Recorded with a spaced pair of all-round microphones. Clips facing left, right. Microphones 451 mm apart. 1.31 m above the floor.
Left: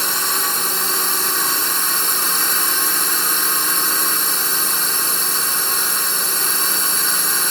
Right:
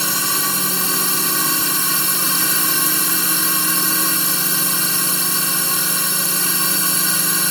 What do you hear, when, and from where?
0.0 s a drone: 50° right (ahead or behind)